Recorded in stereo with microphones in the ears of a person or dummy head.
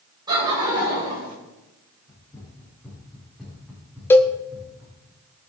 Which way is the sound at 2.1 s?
15° left (ahead or behind).